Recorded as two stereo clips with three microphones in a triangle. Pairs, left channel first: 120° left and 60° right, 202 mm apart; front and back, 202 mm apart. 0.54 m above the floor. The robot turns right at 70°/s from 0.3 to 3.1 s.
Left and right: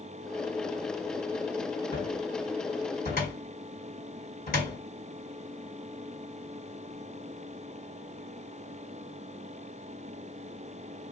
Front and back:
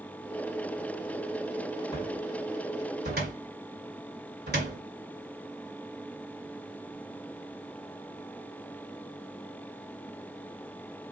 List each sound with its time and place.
1.9 s a cupboard door: 75° left, 1.9 m; by 4.8 s 155° left, 1.9 m